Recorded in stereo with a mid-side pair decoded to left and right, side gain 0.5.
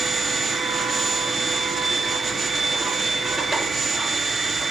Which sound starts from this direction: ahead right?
A machine running, at 0.0 s.